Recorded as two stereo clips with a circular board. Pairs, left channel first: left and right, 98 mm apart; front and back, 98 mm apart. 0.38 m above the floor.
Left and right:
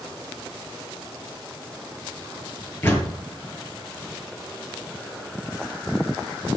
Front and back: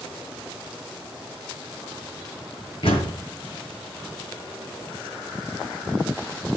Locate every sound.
2.8 s a door slam: 20° left, 6.5 m